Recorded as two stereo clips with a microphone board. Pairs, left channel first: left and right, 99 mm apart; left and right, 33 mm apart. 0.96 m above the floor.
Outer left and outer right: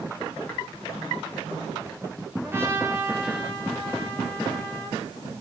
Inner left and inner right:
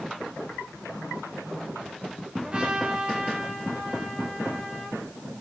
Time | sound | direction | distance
2.4 | a trumpet | 25° right (ahead or behind) | 6 m